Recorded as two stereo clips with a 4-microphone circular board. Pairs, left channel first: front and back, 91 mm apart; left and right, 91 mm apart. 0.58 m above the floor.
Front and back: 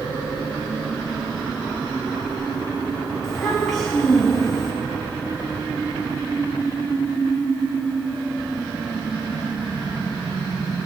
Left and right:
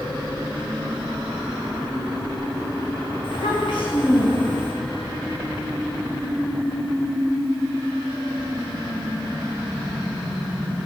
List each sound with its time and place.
3.2 s a child speaking: 85° left, 4.5 m